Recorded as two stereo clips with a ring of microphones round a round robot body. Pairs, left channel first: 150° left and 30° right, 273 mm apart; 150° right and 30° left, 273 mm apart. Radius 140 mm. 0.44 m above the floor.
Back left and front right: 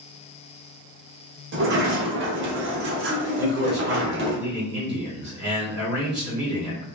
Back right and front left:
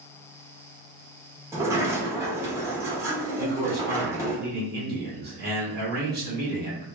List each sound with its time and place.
1.5 s a sliding door: 45° right, 0.9 m
3.4 s a man speaking: 5° right, 1.6 m